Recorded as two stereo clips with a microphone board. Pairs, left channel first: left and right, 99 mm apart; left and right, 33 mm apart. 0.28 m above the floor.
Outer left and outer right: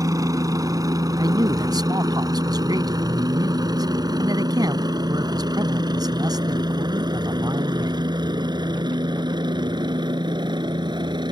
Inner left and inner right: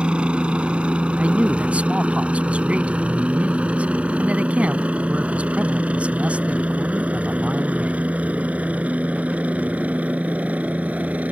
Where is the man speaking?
45° right (ahead or behind).